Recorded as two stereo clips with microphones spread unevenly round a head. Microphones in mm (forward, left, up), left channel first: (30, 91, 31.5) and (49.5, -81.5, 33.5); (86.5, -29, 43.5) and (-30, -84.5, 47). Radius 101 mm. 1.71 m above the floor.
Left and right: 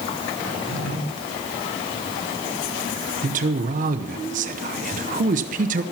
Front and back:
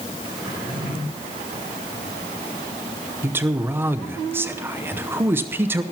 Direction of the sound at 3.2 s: 90° right.